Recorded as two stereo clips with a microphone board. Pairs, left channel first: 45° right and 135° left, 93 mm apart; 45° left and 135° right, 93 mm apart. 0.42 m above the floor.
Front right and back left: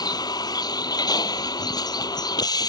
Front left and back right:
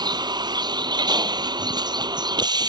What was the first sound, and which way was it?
A vehicle, 90° right.